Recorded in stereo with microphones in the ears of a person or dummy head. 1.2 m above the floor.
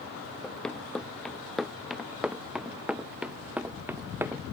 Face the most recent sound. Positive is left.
turn(degrees=-10)  # may be behind; listen again after turning